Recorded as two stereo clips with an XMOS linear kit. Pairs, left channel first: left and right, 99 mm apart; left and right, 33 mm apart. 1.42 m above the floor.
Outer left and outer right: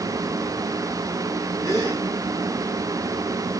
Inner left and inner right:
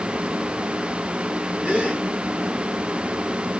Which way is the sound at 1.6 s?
35° right (ahead or behind).